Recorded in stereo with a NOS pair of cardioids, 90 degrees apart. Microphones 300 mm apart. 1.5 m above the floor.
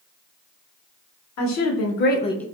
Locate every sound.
1.4 s a woman speaking: 70° left, 1.0 m; by 2.5 s straight ahead, 0.5 m